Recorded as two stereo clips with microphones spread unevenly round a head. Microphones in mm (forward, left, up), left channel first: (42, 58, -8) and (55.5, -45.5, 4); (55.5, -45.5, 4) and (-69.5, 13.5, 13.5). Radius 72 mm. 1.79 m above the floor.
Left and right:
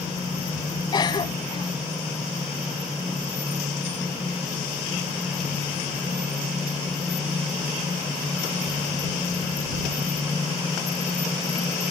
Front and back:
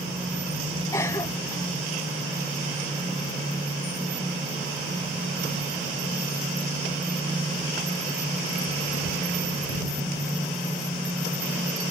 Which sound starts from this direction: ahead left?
A cough, at 0.9 s.